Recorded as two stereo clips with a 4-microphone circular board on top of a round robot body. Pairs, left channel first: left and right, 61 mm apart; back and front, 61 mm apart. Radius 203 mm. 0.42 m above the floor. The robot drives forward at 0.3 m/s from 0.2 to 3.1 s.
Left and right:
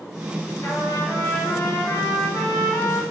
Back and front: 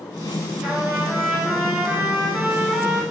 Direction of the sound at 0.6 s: 50° left.